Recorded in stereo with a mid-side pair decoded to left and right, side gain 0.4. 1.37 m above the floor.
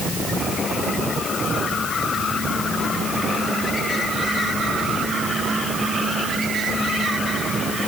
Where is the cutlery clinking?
No cutlery clinking in this recording.